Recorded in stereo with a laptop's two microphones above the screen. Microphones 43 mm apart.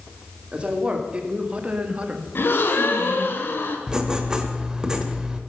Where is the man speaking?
25° right (ahead or behind), 3 m; by 2.2 s 35° right (ahead or behind), 1.7 m.